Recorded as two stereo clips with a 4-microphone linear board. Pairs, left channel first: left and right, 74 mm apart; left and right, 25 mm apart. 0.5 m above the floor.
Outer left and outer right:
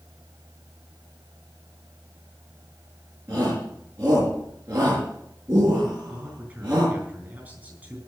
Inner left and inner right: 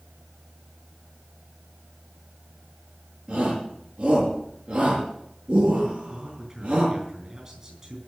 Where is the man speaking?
25° right (ahead or behind), 7.5 m.